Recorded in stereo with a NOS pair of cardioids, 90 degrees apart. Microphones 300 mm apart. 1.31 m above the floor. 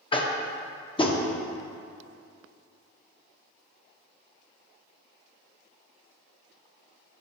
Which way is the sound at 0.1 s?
15° left.